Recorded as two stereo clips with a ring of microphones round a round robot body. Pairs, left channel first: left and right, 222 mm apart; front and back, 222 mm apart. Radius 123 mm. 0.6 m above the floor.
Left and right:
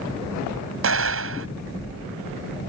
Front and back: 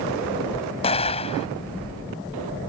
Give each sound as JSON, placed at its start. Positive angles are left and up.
{"t": 0.8, "sound": "an explosion", "azimuth_deg": -65}